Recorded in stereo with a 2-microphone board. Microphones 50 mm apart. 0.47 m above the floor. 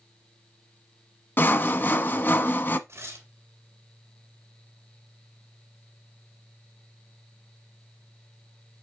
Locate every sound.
1.4 s sawing: 45° left (ahead or behind), 0.8 m
2.9 s tearing paper: 55° right (ahead or behind), 2.5 m